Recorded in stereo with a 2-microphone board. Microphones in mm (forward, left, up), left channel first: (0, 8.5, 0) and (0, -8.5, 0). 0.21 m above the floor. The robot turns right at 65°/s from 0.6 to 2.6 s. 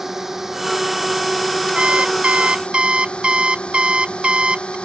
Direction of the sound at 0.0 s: 20° right.